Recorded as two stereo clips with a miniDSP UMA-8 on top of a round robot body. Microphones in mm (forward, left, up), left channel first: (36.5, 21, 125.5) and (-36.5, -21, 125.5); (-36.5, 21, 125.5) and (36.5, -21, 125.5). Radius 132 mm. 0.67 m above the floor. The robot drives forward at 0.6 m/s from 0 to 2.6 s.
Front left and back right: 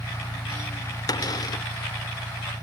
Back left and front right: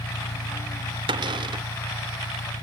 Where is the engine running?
140° left; by 2.6 s 150° left.